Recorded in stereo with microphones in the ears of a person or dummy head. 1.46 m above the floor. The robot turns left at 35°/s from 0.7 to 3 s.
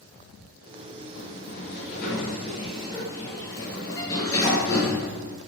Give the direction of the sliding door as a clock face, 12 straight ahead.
9 o'clock.